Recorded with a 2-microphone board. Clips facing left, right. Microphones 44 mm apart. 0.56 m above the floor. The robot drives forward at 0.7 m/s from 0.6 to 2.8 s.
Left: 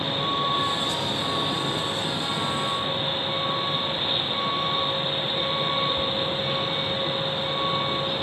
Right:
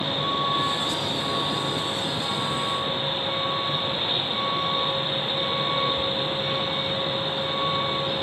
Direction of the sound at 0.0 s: Centre (ahead or behind).